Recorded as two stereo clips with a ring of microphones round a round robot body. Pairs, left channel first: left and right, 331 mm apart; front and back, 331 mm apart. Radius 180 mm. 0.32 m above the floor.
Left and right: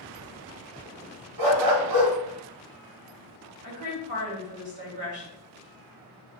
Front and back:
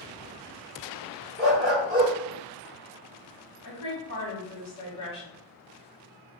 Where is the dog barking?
125° right, 0.7 m.